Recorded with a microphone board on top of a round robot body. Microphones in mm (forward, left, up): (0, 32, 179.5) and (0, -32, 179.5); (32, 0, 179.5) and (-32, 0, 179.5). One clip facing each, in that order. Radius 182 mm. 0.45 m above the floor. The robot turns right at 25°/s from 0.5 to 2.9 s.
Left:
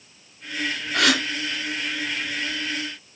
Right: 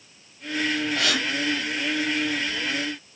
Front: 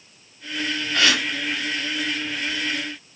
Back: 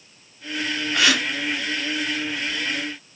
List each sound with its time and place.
0.9 s a gasp: 105° left, 4 m; by 1.2 s 110° left, 4 m